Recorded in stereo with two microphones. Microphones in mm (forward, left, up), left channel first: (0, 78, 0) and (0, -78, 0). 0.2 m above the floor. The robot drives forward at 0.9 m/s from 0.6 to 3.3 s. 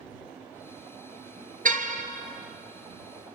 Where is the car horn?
65° right (ahead or behind), 2 m; by 2.0 s 60° right (ahead or behind), 2.5 m.